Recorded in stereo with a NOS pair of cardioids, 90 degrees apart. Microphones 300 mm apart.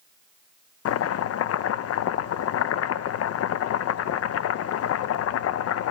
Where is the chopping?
60° left, 0.7 m.